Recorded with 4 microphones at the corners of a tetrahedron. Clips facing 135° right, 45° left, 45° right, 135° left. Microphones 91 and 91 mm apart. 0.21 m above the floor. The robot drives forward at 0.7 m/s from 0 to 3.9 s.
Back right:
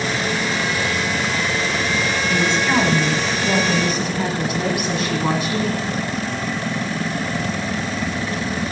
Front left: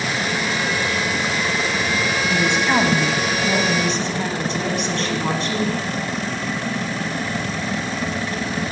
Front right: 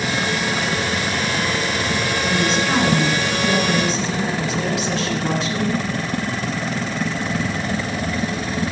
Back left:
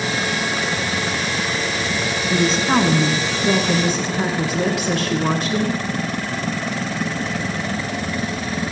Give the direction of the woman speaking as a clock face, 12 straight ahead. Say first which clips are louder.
Even, back left 3 dB; 9 o'clock.